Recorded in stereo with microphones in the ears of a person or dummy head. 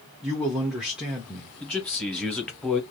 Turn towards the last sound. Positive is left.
turn(degrees=5)  # may be behind; listen again after turning